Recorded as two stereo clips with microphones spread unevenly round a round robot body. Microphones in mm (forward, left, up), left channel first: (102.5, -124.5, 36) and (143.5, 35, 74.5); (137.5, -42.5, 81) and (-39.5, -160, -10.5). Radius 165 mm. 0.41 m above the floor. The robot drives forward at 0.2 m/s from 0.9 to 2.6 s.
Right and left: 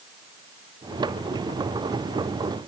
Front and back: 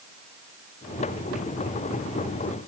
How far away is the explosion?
I don't hear an explosion.